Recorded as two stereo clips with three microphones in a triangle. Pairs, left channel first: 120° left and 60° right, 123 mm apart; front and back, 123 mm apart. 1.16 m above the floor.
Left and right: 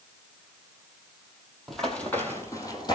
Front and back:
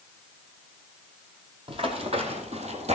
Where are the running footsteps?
150° right, 2 m; by 3.0 s 170° left, 2.5 m.